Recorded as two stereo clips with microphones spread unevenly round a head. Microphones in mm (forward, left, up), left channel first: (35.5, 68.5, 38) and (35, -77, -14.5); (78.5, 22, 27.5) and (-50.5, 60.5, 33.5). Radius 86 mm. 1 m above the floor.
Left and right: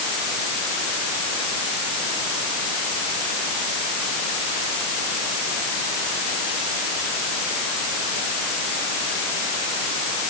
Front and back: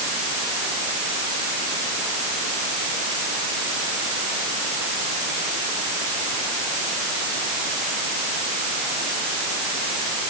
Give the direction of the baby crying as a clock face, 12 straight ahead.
No baby crying in this recording.